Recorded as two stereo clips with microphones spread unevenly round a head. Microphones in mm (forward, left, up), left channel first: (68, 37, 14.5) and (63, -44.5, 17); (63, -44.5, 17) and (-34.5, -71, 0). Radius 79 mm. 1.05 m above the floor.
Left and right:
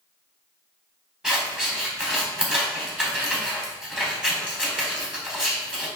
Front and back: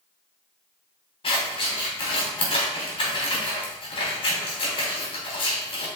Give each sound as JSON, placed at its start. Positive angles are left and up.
{"t": 1.2, "sound": "scissors", "azimuth_deg": -15, "distance_m": 4.0}